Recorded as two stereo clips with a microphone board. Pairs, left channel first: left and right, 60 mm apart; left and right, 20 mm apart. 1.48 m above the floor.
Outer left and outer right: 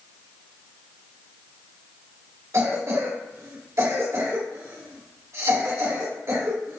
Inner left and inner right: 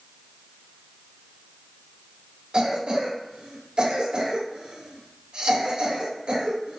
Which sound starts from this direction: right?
A cough, at 2.5 s.